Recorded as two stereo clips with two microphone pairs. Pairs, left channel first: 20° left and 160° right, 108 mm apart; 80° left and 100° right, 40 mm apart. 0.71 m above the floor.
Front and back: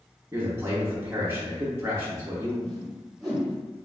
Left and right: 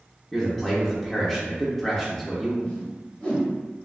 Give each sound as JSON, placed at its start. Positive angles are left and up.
{"t": 0.3, "sound": "a man speaking", "azimuth_deg": 160, "distance_m": 0.6}
{"t": 2.6, "sound": "a whoosh", "azimuth_deg": 105, "distance_m": 1.2}